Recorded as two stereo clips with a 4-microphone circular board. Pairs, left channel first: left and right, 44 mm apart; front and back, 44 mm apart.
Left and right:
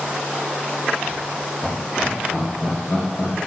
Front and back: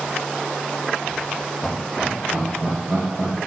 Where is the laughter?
45° left, 0.7 m; by 3.3 s 150° left, 2 m.